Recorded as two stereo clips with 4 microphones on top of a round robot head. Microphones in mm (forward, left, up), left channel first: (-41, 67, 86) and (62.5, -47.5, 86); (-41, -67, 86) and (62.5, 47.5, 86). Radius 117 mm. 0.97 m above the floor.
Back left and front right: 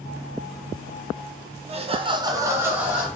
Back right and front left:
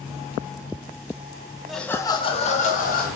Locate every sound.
1.7 s laughter: 40° right, 0.6 m; by 3.1 s 130° right, 0.8 m